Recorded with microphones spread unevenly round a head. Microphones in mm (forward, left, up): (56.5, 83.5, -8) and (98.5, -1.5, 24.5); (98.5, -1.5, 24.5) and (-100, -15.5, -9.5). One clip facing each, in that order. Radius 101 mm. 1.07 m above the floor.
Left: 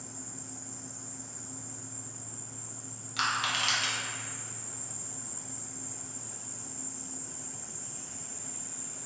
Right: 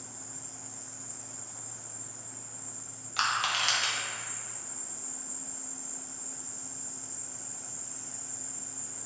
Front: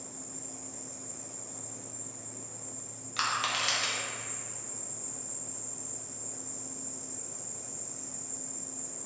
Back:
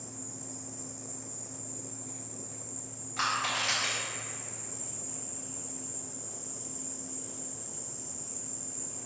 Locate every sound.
0.0 s an insect: 70° left, 1.3 m
3.2 s crushing: 15° right, 0.7 m